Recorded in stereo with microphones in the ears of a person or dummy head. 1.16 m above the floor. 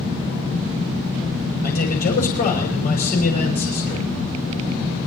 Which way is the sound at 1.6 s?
45° left (ahead or behind).